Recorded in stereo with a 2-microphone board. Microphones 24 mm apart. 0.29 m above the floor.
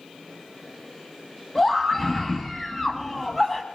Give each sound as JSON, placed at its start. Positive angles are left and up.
{"t": 1.6, "sound": "a scream", "side_deg": 20, "distance_m": 2.0}